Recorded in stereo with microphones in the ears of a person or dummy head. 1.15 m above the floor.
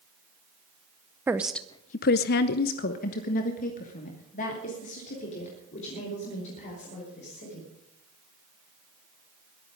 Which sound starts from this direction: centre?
A woman speaking, at 1.3 s.